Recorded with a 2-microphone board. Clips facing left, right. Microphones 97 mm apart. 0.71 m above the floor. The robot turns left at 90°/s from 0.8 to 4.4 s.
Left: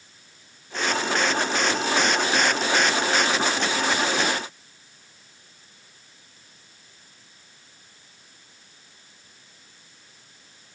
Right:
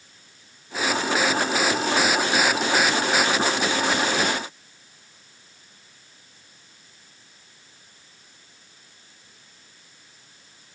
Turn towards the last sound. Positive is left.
No sound to turn to.